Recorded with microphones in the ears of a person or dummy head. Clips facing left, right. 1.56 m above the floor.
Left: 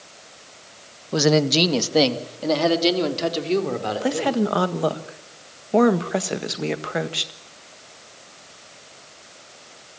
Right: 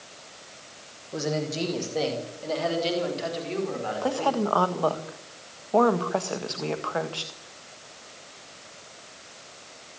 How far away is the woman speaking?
About 1.7 m.